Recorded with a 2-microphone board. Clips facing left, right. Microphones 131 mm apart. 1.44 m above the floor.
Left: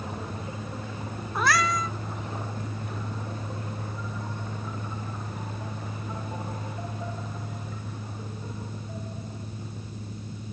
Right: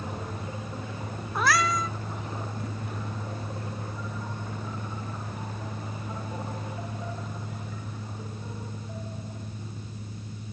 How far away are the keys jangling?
I don't hear keys jangling.